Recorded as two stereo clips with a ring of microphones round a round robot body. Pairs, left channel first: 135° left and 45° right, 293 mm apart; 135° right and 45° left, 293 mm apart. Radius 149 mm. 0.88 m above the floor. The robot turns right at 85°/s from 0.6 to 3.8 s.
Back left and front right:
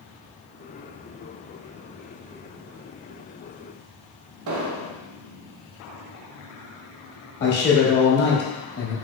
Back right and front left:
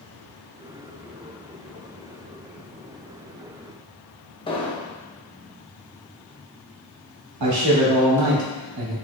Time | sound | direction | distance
4.5 | an explosion | 65° right | 0.6 m
7.4 | a man speaking | 80° left | 1.3 m